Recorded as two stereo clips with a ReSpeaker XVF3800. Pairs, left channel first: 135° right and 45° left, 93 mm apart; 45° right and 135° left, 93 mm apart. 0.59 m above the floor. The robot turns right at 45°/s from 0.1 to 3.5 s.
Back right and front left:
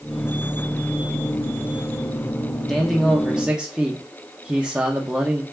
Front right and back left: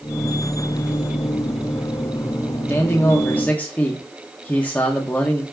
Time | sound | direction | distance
2.7 | a man speaking | 55° right | 0.7 m